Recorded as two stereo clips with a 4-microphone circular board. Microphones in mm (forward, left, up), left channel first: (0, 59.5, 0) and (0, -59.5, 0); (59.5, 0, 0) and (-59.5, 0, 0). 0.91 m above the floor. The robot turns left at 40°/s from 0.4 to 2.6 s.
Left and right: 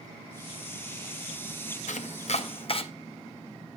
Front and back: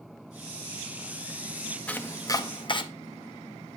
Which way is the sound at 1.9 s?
80° left.